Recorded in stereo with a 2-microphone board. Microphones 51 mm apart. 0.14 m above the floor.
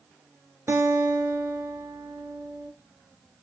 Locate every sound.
0.7 s a guitar: 55° right (ahead or behind), 1.0 m